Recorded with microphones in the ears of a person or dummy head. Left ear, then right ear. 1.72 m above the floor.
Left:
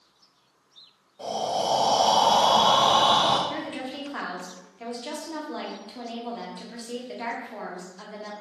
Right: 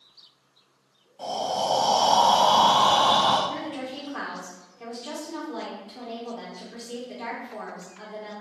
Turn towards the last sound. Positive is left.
turn(degrees=25)  # may be behind; listen again after turning